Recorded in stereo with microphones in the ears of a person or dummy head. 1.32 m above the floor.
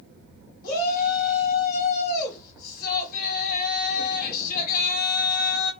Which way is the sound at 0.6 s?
50° left (ahead or behind).